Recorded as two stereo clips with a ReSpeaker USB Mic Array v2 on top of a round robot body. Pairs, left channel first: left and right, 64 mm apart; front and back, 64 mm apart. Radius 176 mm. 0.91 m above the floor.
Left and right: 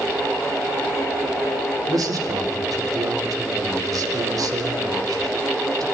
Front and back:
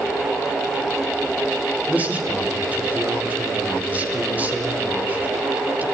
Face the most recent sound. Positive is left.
turn(degrees=-115)